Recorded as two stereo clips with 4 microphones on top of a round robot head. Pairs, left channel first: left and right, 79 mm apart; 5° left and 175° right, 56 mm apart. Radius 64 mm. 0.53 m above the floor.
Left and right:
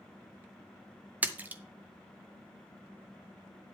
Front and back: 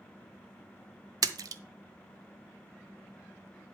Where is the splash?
160° right, 0.6 m.